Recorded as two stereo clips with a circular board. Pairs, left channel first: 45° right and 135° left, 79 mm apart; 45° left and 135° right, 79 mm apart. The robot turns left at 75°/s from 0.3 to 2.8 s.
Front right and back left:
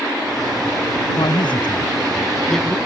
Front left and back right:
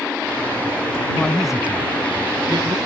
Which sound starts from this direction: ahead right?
A man speaking, at 1.2 s.